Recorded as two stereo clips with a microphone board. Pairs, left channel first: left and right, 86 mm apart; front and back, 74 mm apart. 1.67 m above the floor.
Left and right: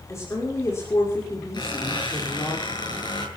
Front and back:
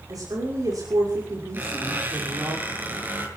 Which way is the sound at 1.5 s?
120° left.